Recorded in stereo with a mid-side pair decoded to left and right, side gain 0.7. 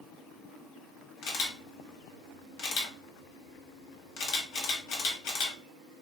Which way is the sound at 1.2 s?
65° left.